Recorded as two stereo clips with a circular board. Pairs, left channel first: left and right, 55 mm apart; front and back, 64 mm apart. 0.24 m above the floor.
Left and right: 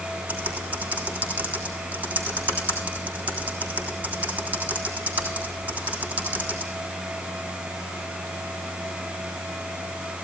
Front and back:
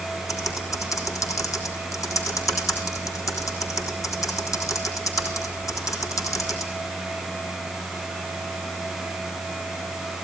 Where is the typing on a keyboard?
30° right, 3.5 m.